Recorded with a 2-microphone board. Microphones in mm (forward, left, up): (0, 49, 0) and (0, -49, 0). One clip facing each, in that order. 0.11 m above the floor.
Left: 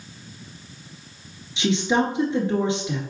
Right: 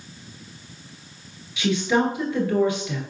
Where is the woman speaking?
25° left (ahead or behind), 1.4 m.